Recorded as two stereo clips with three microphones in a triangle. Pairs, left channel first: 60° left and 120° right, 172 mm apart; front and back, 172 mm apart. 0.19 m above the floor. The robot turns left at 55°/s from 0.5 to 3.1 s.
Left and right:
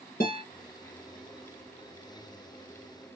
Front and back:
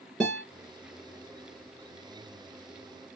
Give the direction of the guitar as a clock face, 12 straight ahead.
9 o'clock.